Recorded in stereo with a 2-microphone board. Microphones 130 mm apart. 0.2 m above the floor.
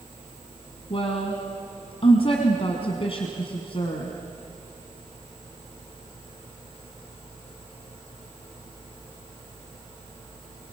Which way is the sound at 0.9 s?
50° left (ahead or behind).